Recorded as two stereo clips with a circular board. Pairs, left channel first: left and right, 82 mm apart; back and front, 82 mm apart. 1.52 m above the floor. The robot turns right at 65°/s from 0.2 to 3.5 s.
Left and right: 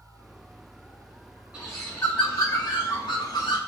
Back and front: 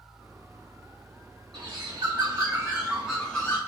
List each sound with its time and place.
1.5 s a bird: 15° right, 2.5 m; by 3.6 s 115° left, 2.5 m